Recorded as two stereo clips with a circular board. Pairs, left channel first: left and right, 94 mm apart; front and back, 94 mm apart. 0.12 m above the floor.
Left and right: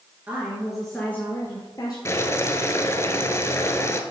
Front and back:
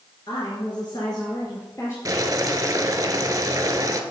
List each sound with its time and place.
0.3 s a woman speaking: 25° right, 1.8 m; by 1.9 s 55° left, 2 m
2.0 s boiling: 140° left, 0.9 m